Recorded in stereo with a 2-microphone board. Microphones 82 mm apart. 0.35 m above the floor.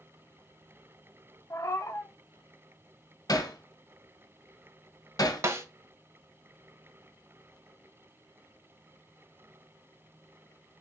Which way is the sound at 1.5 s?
40° left (ahead or behind).